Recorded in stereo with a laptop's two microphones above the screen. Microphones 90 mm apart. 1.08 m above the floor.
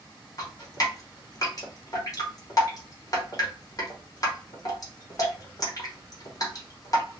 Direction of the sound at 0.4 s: 40° left (ahead or behind).